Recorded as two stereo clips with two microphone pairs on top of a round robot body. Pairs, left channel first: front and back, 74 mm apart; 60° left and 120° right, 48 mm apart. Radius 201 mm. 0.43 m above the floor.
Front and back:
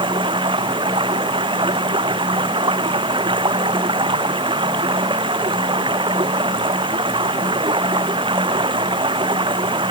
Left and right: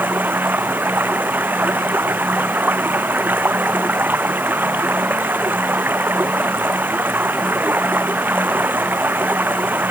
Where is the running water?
170° right.